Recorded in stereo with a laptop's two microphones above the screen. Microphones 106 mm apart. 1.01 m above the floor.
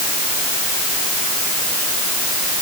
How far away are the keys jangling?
No keys jangling in this recording.